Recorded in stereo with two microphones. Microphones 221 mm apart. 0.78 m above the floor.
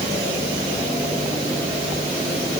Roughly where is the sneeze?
No sneeze in this recording.